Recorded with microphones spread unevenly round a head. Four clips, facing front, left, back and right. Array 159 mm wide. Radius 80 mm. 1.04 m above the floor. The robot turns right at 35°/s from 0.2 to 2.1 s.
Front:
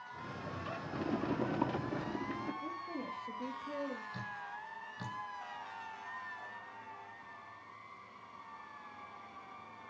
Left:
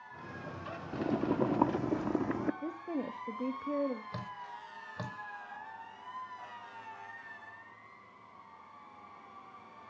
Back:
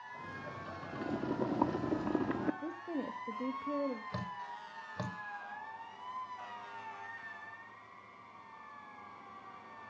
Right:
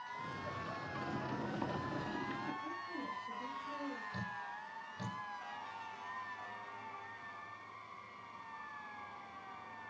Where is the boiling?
80° left, 0.9 m; by 2.5 s 120° left, 0.9 m.